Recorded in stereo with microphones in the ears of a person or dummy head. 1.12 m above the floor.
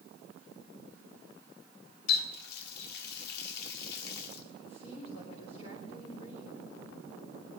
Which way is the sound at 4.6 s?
45° left (ahead or behind).